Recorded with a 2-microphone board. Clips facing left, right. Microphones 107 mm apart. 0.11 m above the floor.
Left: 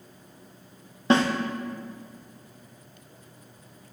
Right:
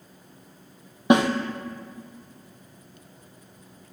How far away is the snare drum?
About 0.7 m.